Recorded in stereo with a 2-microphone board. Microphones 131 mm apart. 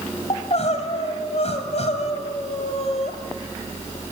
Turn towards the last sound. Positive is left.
turn(degrees=55)  # may be behind; listen again after turning